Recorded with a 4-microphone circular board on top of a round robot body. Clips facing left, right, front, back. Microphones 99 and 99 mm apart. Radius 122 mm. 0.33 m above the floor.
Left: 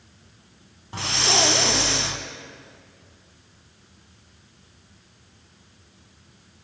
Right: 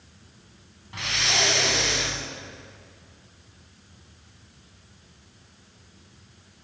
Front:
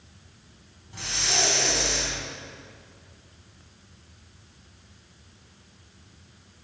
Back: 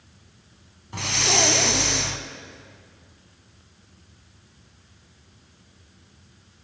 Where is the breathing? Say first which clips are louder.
Left 4 dB, back 6 dB; 150° left, 0.6 m.